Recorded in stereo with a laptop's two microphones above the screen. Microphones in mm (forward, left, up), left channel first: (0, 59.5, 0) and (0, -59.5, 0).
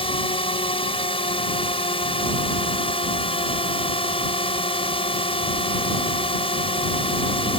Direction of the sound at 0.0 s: 45° left (ahead or behind).